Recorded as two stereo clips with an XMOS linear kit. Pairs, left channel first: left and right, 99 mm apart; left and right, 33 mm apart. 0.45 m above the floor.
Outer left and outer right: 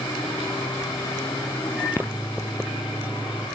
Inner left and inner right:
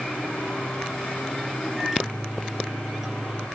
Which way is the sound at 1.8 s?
20° right (ahead or behind).